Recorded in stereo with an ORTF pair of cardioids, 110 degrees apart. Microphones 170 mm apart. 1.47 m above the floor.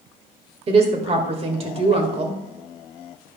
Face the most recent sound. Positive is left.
turn(degrees=-35)